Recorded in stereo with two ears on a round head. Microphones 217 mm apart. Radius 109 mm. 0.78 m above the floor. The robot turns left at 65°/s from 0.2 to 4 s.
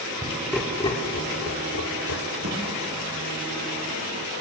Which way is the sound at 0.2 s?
20° right (ahead or behind).